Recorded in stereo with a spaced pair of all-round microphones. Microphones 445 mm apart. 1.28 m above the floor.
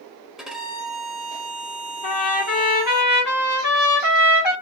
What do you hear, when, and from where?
0.4 s a violin: centre (ahead or behind), 0.6 m
2.0 s a trumpet: 40° left (ahead or behind), 1.3 m